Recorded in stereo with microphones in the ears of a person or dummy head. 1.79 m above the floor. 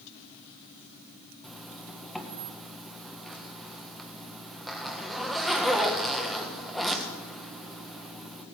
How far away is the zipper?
About 1.4 m.